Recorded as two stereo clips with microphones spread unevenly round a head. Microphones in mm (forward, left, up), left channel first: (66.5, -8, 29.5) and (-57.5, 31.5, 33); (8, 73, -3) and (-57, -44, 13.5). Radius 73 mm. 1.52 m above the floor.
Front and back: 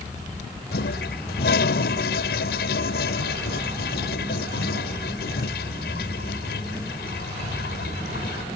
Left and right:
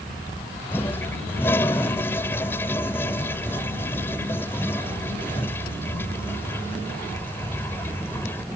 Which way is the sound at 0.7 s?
20° right.